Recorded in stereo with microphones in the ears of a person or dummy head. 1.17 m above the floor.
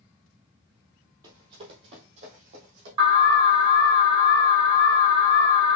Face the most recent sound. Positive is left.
turn(degrees=-30)  # may be behind; listen again after turning